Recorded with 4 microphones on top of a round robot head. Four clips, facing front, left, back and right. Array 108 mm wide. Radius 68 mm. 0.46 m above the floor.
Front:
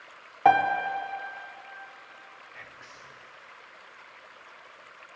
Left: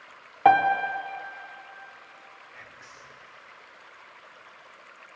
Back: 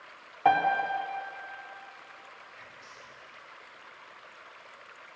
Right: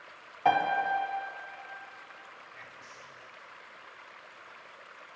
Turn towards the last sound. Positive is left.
turn(degrees=25)